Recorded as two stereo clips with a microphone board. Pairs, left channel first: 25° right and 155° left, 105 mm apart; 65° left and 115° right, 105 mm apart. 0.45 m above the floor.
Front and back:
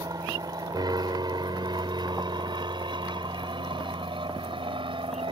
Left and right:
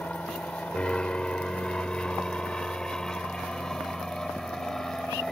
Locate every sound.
0.0 s an aircraft: 140° left; by 5.3 s 155° left